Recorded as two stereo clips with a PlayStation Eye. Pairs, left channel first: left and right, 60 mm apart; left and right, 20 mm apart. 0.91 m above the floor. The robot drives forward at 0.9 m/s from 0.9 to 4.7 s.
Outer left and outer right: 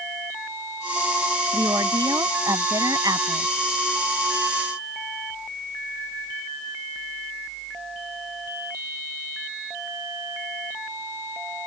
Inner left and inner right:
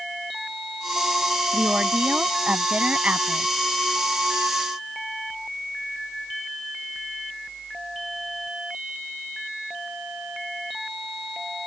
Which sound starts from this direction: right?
A woman speaking, at 1.5 s.